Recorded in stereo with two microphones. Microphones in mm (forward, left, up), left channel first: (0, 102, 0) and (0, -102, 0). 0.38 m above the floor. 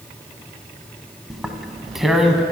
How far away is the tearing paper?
About 0.6 m.